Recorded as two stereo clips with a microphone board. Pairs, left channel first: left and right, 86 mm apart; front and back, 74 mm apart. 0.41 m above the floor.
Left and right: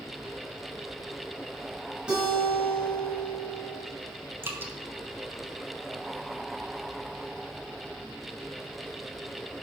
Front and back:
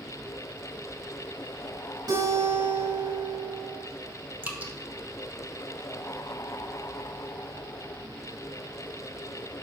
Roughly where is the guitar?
Behind.